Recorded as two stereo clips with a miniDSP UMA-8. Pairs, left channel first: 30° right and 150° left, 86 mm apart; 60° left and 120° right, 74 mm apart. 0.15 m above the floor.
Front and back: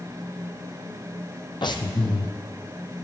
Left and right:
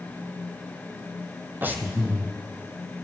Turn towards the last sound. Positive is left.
turn(degrees=-60)